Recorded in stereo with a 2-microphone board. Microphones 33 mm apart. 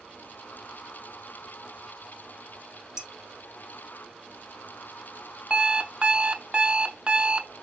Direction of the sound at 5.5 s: 30° right (ahead or behind).